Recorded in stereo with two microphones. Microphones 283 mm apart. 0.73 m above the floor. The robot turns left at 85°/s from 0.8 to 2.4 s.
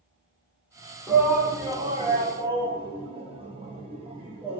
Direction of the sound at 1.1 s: Centre (ahead or behind).